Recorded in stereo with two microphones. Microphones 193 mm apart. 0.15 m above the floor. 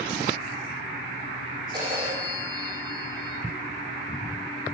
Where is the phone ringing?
20° right (ahead or behind), 4.5 m.